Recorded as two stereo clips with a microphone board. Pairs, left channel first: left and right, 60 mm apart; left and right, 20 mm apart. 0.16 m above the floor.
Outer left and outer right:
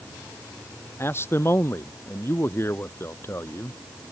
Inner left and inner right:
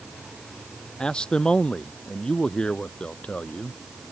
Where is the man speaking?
45° left (ahead or behind).